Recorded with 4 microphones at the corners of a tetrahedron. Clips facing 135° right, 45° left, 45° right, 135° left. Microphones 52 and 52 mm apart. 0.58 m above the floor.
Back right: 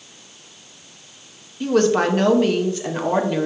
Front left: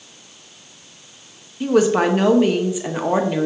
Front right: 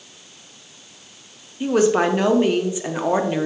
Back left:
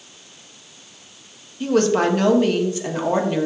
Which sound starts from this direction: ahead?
A woman speaking, at 1.6 s.